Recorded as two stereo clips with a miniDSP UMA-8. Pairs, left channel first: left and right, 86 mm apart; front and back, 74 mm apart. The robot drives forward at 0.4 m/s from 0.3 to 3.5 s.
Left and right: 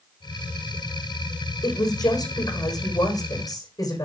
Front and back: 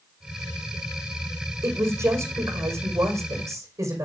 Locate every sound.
1.6 s a woman speaking: 130° left, 4.5 m; by 4.0 s 135° left, 5 m